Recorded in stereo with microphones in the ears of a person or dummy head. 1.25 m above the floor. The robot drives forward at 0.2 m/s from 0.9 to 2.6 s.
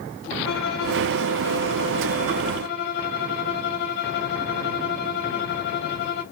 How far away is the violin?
About 1.0 m.